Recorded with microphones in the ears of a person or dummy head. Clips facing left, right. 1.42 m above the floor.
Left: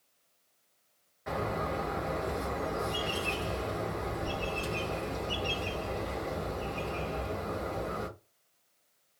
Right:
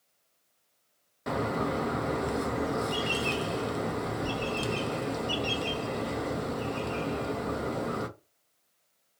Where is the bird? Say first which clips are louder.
Right 4 dB; 50° right (ahead or behind), 0.6 m.